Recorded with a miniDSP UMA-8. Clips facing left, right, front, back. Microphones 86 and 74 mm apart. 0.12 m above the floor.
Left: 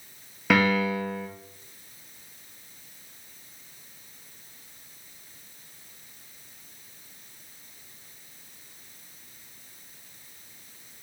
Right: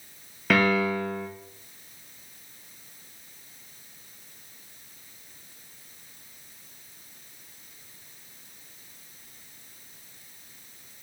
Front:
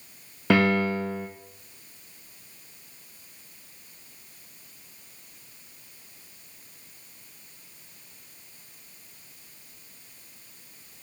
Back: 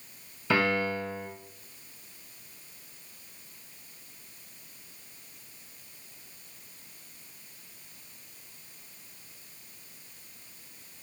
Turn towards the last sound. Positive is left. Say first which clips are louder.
# even, front 5 dB
turn(degrees=5)